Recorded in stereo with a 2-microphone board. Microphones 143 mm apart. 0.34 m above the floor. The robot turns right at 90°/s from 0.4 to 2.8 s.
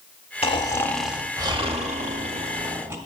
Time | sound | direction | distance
0.4 | snoring | 125° left | 0.8 m